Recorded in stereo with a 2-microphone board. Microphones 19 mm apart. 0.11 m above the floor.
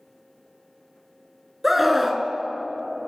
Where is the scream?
10° right (ahead or behind), 1.1 m.